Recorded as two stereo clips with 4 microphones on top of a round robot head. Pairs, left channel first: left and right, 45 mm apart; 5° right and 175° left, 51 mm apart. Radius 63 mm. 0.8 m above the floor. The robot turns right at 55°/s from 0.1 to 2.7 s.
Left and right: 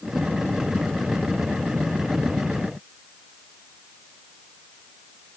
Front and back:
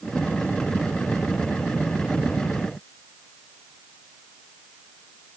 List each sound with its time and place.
Only background noise.